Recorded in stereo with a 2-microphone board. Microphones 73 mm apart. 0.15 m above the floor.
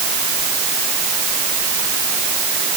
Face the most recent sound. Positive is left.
No sound to turn to.